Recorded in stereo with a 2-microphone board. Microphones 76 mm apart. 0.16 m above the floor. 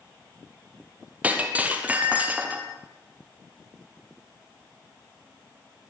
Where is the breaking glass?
20° right (ahead or behind), 2.5 m.